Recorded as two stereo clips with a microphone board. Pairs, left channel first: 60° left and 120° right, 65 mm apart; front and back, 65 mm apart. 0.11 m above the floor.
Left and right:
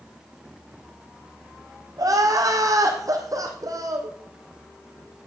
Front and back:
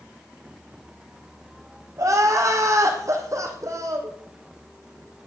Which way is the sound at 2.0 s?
145° right.